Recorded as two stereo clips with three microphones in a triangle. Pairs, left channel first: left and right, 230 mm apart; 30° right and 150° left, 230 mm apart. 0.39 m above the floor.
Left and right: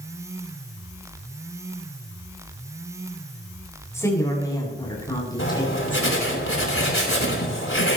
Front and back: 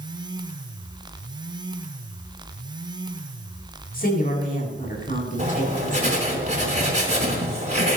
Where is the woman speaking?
15° left, 7 m; by 6.4 s 25° left, 7 m.